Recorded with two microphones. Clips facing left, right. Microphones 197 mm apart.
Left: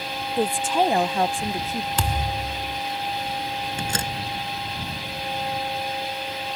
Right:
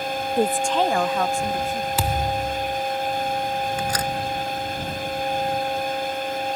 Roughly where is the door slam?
Left.